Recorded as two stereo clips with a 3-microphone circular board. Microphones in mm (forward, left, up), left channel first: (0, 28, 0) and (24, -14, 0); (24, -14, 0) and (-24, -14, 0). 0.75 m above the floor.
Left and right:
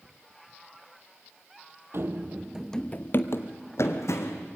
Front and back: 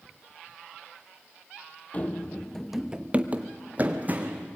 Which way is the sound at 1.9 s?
50° right.